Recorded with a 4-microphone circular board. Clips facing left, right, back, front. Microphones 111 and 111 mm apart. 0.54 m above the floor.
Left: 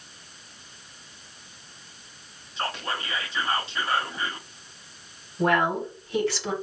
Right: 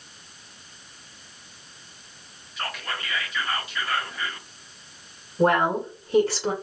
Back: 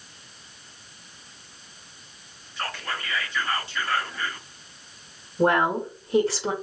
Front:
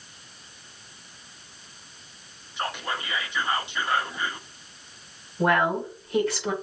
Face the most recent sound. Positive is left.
turn(degrees=-130)